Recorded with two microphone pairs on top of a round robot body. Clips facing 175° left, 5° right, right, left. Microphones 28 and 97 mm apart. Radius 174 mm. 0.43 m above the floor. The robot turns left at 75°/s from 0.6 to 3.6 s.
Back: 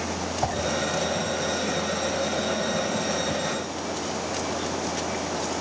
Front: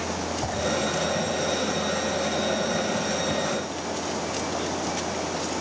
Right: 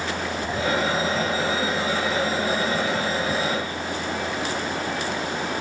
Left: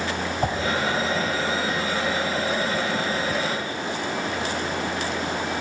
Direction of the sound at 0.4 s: 120° left.